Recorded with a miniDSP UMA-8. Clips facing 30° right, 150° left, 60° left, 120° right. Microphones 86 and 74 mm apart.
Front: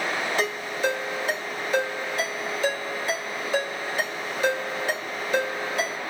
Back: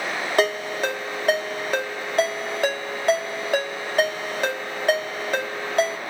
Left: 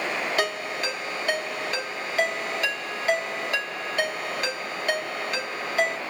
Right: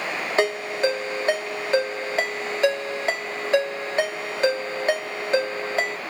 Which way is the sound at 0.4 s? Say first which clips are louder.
Back 9 dB, right 5 dB; straight behind.